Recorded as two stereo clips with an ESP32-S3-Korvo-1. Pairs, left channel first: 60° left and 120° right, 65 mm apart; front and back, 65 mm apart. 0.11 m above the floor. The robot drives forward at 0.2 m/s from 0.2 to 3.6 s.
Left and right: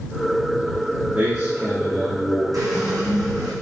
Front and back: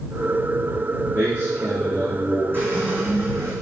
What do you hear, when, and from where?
1.1 s a man speaking: 135° right, 1.7 m; by 2.4 s 145° right, 1.8 m
2.5 s a squeak: 125° right, 1.3 m; by 3.5 s 130° right, 1.4 m